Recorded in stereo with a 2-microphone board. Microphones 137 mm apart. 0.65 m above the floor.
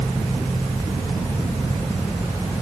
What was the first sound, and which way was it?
Only background noise.